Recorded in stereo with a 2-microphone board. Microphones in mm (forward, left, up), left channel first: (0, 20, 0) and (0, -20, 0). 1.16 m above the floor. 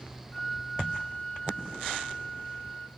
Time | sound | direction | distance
0.3 | a flute | 35° left (ahead or behind) | 1.4 m